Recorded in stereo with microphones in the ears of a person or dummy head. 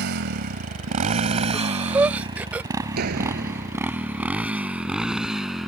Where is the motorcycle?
60° right (ahead or behind); by 5.7 s centre (ahead or behind).